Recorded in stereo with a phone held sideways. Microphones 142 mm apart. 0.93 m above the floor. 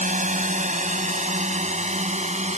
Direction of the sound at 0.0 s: 60° right (ahead or behind).